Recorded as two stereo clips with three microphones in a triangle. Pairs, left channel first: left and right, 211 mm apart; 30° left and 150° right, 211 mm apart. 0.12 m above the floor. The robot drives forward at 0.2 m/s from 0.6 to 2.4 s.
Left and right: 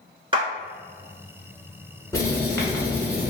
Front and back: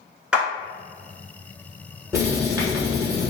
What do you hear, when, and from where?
0.3 s a clap: 70° right, 1.1 m
2.1 s writing: 150° left, 1.0 m